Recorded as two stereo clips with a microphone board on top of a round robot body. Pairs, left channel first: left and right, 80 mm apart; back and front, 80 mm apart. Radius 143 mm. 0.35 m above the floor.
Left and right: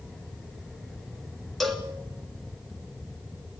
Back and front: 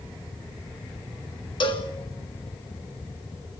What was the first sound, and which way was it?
A cowbell, straight behind.